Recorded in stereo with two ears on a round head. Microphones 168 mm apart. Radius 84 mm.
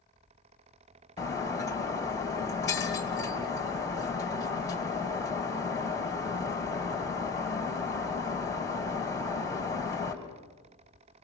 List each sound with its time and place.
1.2 s breaking glass: 15° left (ahead or behind), 2 m